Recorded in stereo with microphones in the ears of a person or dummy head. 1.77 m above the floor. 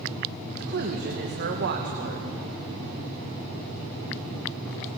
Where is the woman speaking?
55° right (ahead or behind), 2.5 m.